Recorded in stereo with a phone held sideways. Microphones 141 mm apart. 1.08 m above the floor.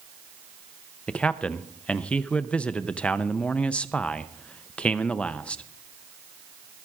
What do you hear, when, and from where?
1.1 s a man speaking: 10° left (ahead or behind), 0.6 m